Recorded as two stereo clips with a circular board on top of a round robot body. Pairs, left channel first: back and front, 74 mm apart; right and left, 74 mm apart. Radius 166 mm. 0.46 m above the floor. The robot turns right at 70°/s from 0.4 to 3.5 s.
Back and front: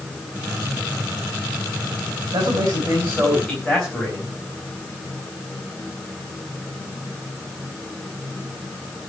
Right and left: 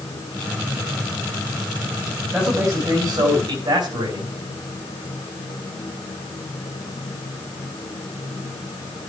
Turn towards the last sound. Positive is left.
turn(degrees=95)